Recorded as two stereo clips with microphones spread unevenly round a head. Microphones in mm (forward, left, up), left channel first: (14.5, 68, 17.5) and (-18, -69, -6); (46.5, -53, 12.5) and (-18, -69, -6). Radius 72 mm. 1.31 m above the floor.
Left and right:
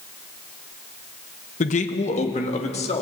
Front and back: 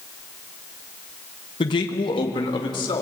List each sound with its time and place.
1.6 s a man speaking: 35° left, 1.4 m; by 3.0 s 30° left, 3 m